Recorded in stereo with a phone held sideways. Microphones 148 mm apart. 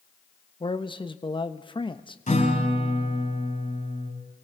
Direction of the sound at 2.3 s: 55° left (ahead or behind).